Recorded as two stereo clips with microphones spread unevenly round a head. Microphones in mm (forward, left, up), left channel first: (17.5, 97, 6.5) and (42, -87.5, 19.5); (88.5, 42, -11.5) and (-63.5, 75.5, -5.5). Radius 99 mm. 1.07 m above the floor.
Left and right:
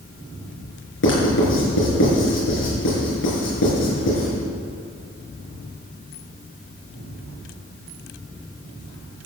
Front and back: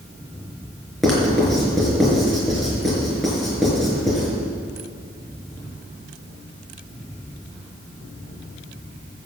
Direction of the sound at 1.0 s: 75° left.